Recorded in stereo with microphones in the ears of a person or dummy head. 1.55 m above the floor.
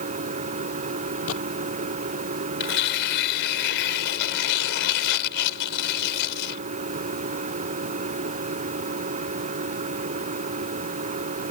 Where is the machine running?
40° right (ahead or behind).